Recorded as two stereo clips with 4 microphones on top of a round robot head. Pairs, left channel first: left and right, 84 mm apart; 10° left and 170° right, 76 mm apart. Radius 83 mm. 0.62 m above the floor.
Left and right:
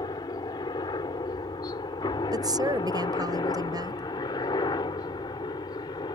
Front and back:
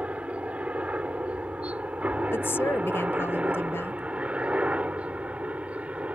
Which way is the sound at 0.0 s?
120° left.